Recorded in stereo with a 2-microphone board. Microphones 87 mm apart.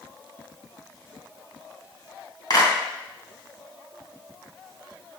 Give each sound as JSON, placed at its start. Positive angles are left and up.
{"t": 2.5, "sound": "a clap", "side_deg": 50, "distance_m": 3.0}